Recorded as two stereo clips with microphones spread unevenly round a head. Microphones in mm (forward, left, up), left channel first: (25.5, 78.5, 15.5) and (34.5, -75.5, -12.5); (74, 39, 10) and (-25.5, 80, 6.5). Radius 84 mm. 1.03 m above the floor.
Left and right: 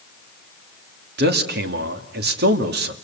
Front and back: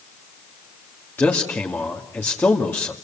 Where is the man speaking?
100° right, 2 m.